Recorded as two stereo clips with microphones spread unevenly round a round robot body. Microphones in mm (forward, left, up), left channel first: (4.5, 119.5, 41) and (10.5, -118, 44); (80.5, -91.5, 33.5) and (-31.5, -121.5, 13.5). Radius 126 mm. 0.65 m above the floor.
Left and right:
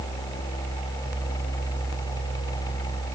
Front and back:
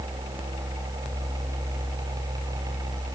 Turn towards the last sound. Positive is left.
No sound to turn to.